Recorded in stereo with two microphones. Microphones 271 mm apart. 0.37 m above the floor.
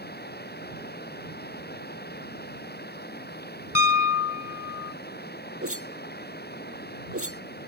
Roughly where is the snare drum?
No snare drum in this recording.